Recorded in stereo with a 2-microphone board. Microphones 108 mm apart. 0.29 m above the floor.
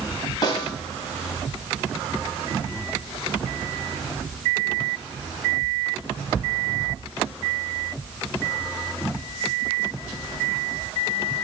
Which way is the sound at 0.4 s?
40° left (ahead or behind).